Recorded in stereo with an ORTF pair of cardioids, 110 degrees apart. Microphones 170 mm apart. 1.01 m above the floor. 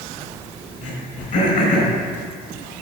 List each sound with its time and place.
0.8 s throat clearing: 50° left, 4 m